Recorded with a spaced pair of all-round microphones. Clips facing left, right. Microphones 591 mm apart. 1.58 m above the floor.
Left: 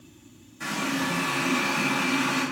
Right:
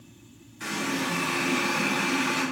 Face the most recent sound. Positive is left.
turn(degrees=65)  # may be behind; listen again after turning